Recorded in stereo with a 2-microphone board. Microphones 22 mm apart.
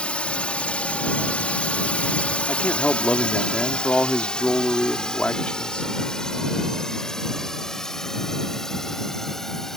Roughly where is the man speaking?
Left.